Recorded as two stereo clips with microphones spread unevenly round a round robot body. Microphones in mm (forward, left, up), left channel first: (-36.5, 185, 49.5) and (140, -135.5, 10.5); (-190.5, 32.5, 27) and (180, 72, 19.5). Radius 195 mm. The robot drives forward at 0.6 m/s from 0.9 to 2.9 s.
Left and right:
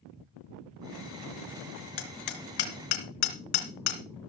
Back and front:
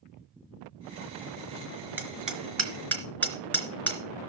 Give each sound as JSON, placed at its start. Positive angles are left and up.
{"t": 2.0, "sound": "hammering", "azimuth_deg": 90, "distance_m": 3.5}